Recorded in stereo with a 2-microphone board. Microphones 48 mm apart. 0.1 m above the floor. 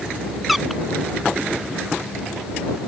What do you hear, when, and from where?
0.5 s a squeak: 5° right (ahead or behind)